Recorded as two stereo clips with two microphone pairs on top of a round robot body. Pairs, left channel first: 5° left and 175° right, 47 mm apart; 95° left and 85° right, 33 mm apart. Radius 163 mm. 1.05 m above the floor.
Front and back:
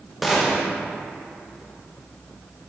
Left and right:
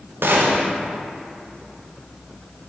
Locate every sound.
0.2 s a gunshot: 90° right, 1.0 m